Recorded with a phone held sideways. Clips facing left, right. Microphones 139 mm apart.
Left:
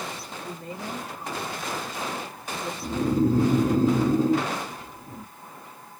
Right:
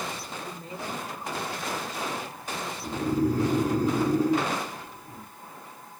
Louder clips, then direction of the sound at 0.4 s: Left 4 dB; 55° left (ahead or behind).